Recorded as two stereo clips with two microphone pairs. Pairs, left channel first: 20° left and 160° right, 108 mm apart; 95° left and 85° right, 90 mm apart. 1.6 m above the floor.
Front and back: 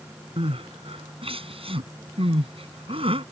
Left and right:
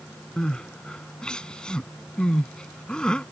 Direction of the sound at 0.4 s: 175° left.